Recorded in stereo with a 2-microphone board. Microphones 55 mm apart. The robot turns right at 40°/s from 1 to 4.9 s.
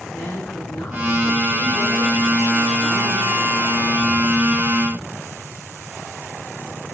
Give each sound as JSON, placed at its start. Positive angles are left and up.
{"t": 0.1, "sound": "a woman speaking", "azimuth_deg": 120, "distance_m": 8.5}